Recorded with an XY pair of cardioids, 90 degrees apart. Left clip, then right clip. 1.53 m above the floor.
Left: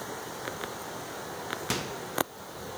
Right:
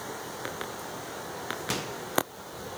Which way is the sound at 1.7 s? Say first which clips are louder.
Left 1 dB; 10° left.